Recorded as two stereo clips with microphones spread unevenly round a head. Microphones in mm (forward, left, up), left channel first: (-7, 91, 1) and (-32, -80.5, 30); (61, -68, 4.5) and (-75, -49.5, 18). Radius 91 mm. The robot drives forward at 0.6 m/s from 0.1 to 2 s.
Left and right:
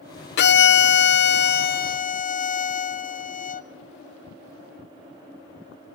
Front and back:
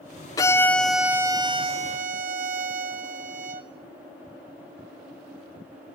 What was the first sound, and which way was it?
A violin, 60° left.